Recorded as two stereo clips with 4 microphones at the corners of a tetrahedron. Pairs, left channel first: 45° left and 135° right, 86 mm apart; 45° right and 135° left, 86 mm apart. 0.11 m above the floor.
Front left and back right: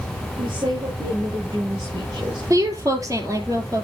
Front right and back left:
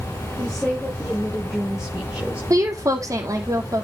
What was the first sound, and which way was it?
A woman speaking, 130° right.